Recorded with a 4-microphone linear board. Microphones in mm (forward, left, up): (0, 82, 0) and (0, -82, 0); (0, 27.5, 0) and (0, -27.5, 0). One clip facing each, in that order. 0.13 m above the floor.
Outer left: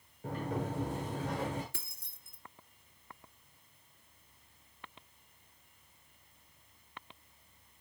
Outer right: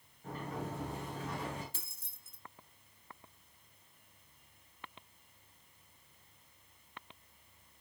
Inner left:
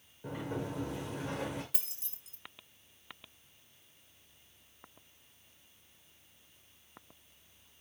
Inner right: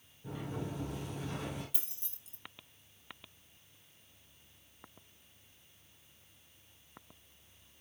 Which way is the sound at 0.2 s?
85° left.